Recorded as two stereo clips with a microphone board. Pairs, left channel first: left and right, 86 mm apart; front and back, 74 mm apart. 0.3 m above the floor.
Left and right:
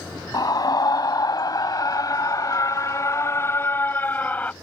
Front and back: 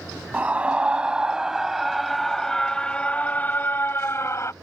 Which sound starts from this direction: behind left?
A scream, at 0.3 s.